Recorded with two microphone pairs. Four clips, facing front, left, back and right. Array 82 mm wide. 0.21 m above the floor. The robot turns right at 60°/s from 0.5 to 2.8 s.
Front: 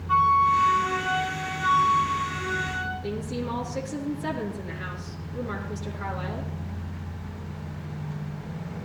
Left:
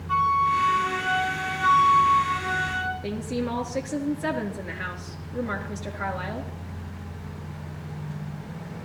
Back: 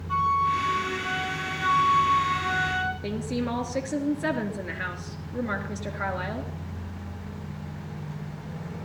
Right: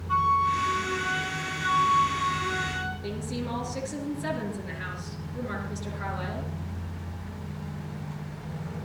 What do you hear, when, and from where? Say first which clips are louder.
0.1 s a flute: left 2 dB, front 4 dB; 25° left, 7 m; by 2.9 s 160° left, 7 m
3.0 s a woman speaking: left 4 dB, back 2 dB; 155° left, 3.5 m